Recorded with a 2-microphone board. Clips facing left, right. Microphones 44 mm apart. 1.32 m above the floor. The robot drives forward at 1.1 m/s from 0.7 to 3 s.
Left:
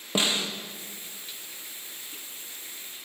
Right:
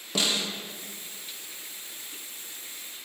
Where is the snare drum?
25° left (ahead or behind), 0.8 m.